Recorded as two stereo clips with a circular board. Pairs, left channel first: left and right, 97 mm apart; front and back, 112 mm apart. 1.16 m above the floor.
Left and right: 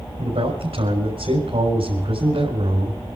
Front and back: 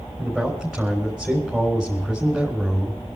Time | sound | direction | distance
0.2 | a man speaking | 95° right | 4 m